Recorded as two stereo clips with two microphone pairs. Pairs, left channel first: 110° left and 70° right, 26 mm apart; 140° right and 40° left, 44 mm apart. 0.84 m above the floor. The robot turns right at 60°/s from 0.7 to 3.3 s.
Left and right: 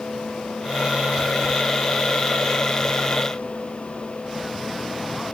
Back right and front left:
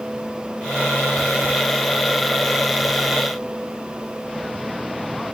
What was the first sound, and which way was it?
Only background noise.